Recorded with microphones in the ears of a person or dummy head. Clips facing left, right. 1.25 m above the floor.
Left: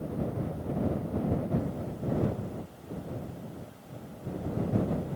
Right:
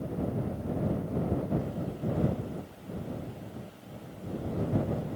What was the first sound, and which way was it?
Only background noise.